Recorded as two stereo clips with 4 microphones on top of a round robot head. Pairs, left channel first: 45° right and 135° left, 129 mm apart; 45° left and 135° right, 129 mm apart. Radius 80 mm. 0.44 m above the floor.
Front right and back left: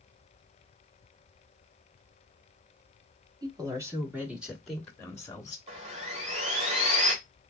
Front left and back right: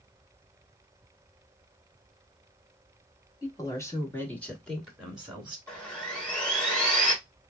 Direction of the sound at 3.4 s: 95° left.